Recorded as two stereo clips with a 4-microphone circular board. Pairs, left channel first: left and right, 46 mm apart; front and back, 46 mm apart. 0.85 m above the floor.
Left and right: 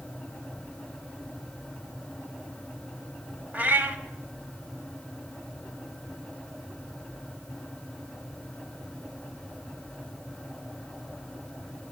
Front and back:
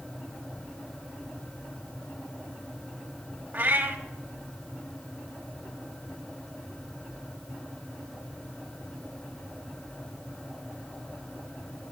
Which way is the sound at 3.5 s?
135° right.